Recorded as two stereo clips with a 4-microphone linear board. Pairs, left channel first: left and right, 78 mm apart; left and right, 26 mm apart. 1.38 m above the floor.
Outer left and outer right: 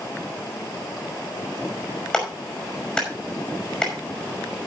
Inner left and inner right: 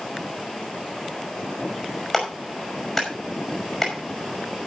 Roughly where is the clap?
Centre.